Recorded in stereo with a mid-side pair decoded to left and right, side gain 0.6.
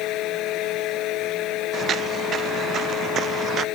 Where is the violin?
I don't hear a violin.